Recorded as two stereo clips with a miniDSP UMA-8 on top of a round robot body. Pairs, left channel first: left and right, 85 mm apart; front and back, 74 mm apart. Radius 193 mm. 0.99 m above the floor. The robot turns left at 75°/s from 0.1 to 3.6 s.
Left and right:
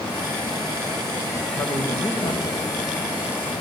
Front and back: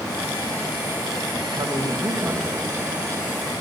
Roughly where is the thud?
I don't hear a thud.